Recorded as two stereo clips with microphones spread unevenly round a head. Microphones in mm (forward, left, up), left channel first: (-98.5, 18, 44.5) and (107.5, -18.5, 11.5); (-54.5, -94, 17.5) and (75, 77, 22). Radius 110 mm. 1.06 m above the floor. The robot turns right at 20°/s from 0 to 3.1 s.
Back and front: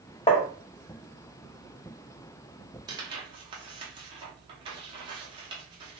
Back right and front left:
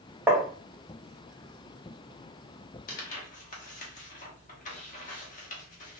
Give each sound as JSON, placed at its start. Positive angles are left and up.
{"t": 0.3, "sound": "tapping", "azimuth_deg": 125, "distance_m": 0.7}
{"t": 2.9, "sound": "tearing paper", "azimuth_deg": -85, "distance_m": 0.8}